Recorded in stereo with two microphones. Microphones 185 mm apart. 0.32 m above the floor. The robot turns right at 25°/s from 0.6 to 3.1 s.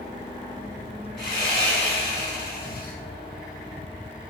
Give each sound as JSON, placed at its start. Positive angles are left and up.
{"t": 1.2, "sound": "sawing", "azimuth_deg": 85, "distance_m": 1.4}